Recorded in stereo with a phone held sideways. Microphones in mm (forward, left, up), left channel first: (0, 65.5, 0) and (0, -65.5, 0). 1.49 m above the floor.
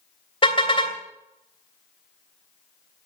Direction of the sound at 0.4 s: 40° left (ahead or behind).